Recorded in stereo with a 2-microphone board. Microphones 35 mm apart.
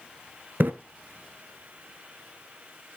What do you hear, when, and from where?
0.6 s a splash: 70° right (ahead or behind), 0.7 m